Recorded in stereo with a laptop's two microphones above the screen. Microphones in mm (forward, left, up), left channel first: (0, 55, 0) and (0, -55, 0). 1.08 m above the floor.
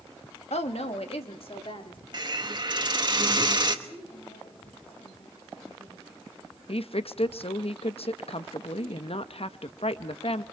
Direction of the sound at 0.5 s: 75° left (ahead or behind).